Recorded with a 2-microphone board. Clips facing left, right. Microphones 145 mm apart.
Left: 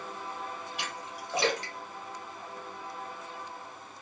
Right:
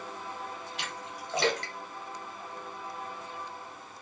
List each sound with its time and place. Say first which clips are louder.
0.8 s a splash: left 1 dB; 10° left (ahead or behind), 1.5 m